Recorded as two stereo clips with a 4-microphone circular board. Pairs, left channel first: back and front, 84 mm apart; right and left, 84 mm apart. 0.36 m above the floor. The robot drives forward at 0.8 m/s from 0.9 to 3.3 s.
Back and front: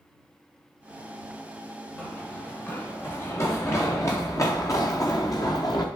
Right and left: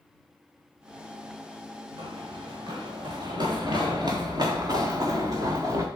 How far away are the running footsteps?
About 4.5 m.